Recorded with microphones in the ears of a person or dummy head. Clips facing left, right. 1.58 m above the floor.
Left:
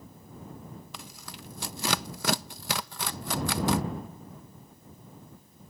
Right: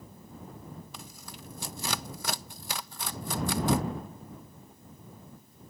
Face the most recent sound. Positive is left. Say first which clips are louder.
# left 1 dB
turn(degrees=60)  # may be behind; listen again after turning